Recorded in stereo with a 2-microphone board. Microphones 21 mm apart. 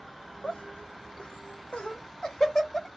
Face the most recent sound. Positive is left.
turn(degrees=25)  # may be behind; listen again after turning